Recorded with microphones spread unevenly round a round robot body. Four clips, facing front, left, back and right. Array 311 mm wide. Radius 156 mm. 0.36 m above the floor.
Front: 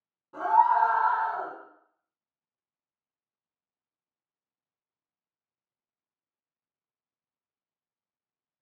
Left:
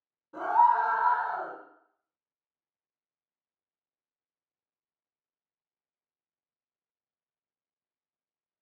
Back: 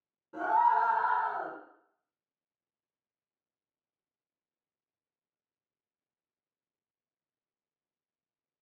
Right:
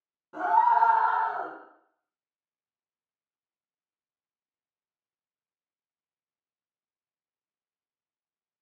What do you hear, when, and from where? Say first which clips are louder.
0.3 s a scream: right 1 dB, front 4 dB; 160° right, 1.5 m; by 1.5 s 90° right, 1.4 m